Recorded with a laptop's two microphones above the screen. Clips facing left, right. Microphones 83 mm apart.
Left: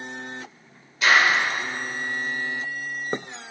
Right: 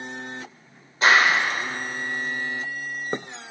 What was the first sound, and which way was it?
A clap, 35° right (ahead or behind).